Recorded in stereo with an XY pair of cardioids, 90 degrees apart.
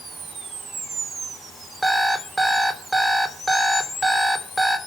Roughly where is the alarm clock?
Ahead.